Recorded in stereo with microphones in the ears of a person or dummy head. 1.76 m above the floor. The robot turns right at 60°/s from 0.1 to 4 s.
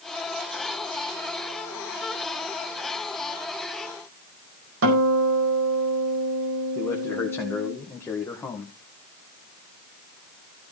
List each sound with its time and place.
4.8 s a guitar: 70° right (ahead or behind), 4.5 m
6.8 s a man speaking: 15° left (ahead or behind), 1.9 m